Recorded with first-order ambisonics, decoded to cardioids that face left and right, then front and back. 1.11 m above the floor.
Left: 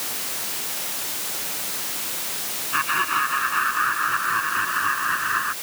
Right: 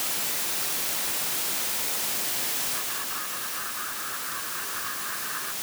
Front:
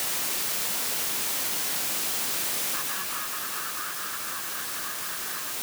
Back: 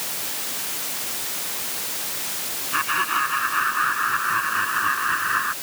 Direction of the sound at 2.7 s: 130° left.